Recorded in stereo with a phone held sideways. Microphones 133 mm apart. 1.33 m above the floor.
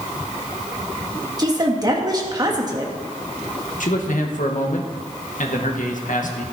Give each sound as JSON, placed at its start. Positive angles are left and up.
{"t": 1.4, "sound": "a woman speaking", "side_deg": -30, "distance_m": 1.7}
{"t": 3.8, "sound": "a man speaking", "side_deg": 75, "distance_m": 1.6}